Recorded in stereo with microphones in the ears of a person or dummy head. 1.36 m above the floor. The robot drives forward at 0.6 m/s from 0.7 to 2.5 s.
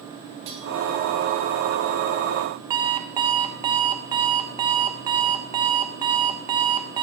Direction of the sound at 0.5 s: 30° right (ahead or behind).